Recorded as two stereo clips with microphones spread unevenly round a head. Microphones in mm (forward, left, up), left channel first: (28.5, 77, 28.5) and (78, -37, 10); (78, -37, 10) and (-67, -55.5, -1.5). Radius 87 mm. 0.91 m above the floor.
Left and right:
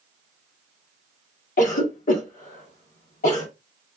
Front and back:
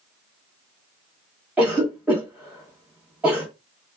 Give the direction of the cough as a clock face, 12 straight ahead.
8 o'clock.